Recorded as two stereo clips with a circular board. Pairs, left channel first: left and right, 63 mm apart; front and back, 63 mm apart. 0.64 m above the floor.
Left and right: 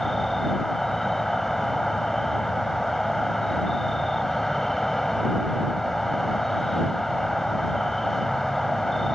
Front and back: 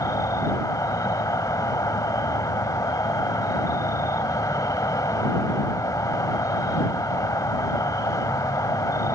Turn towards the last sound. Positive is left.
turn(degrees=5)